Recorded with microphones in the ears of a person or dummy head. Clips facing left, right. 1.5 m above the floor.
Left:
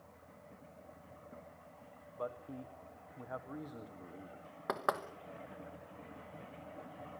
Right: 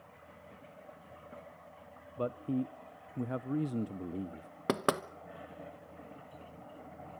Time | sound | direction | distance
2.2 | a man speaking | 40° right (ahead or behind) | 0.6 m
4.7 | knocking | 40° right (ahead or behind) | 1.0 m